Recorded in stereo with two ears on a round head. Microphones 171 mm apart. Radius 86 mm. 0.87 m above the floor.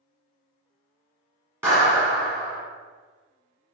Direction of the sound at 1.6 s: 15° right (ahead or behind).